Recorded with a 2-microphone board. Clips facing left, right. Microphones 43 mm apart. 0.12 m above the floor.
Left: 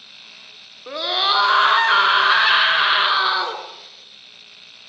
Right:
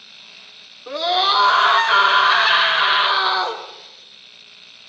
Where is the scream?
10° left (ahead or behind), 1.3 m.